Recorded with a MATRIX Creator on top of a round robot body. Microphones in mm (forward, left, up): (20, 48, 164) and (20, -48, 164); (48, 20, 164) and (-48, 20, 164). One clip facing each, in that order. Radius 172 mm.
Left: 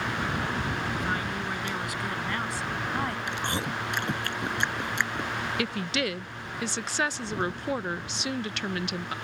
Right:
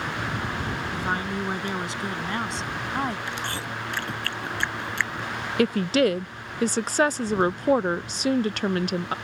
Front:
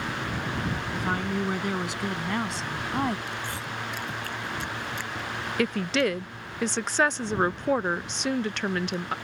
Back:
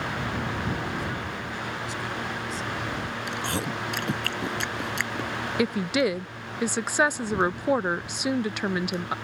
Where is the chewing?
160° left.